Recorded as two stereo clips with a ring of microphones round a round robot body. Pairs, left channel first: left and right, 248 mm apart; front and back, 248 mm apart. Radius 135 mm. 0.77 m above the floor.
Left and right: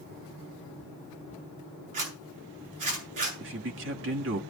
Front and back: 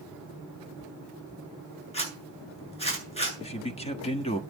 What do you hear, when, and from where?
1.9 s a zipper: 65° right, 8.5 m
3.4 s a man speaking: 60° right, 1.4 m